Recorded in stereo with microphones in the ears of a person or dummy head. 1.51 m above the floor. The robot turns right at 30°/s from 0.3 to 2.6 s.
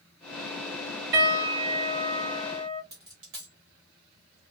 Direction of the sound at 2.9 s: 25° right (ahead or behind).